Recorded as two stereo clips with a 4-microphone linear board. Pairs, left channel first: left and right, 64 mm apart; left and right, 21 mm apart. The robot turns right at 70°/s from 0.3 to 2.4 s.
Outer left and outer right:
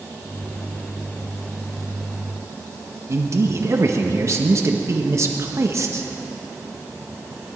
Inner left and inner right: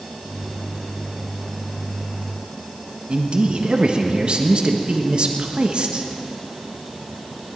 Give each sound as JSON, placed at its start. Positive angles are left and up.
{"t": 3.1, "sound": "a man speaking", "side_deg": -50, "distance_m": 1.5}